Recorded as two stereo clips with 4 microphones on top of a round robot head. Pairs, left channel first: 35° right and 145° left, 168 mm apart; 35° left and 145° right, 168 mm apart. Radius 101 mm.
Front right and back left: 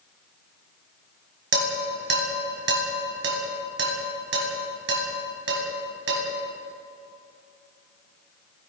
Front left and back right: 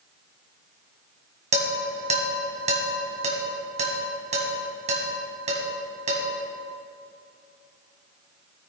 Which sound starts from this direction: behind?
Dishes clattering, at 1.5 s.